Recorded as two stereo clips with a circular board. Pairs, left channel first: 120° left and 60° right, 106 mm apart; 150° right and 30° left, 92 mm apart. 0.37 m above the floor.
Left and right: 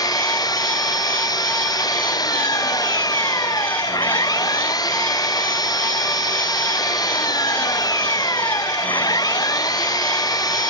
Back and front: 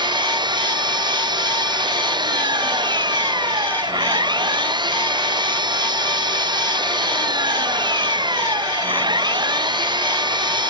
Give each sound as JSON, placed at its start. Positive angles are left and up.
{"t": 0.0, "sound": "an engine running", "azimuth_deg": 65}